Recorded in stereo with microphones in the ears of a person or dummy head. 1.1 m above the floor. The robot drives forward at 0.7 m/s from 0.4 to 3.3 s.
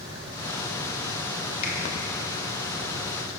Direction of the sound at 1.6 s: 40° left (ahead or behind).